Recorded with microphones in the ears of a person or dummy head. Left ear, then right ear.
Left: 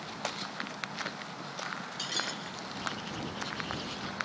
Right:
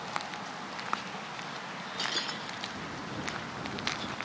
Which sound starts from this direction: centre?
Breaking glass, at 2.0 s.